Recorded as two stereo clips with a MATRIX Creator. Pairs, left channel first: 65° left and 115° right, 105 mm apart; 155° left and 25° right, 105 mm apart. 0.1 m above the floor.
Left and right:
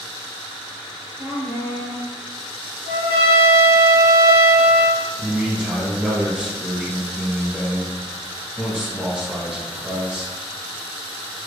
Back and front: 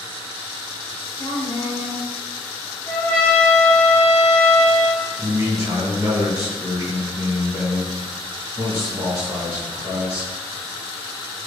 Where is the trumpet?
145° right, 1.9 m.